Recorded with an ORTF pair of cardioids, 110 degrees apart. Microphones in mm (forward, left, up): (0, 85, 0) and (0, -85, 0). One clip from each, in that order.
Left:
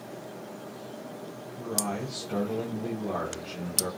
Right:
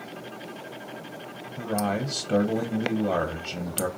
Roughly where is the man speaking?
Ahead right.